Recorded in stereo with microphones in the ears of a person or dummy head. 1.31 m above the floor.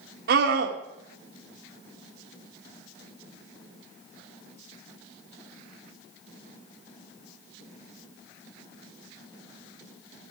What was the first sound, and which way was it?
A scream, 60° right (ahead or behind).